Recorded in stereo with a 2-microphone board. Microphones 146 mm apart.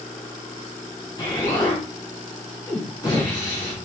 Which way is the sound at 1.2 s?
30° left (ahead or behind).